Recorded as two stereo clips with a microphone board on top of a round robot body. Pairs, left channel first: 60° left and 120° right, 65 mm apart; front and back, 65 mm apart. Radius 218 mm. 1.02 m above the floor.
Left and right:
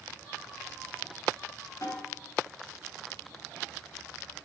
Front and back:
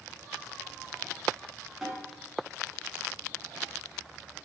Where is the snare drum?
90° left, 9 m.